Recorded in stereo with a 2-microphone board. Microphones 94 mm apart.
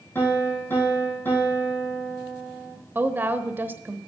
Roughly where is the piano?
Left.